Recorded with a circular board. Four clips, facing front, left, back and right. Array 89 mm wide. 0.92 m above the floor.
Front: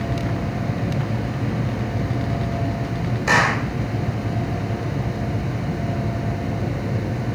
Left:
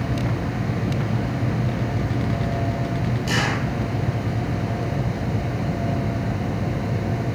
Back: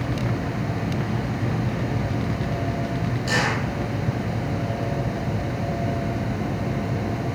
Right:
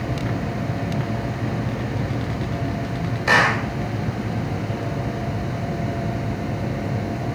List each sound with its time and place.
3.3 s a clap: 50° right, 4 m